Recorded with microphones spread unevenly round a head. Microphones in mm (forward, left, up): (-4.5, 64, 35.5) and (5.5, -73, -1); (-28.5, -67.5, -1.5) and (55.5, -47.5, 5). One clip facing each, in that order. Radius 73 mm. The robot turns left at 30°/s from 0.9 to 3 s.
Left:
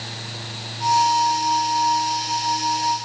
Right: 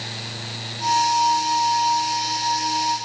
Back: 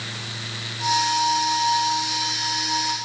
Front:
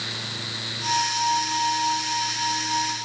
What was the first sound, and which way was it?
Only background noise.